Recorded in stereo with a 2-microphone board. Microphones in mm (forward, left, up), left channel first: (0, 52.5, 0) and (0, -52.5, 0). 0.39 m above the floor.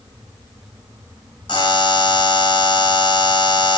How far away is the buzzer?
About 3 m.